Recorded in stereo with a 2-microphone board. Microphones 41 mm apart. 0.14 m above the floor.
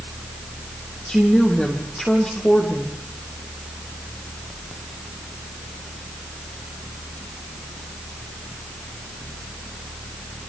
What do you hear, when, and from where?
1.1 s a woman speaking: 25° left (ahead or behind), 4.5 m